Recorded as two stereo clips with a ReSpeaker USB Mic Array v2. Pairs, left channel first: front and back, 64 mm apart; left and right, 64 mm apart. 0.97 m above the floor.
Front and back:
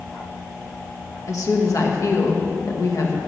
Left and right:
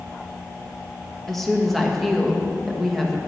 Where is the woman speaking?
5° left, 1.2 m.